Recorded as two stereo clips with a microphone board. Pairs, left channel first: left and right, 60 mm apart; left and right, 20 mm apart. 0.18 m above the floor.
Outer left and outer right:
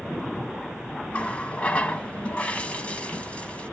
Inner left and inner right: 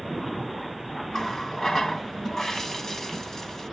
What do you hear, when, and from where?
1.1 s a running tap: 20° left (ahead or behind), 0.7 m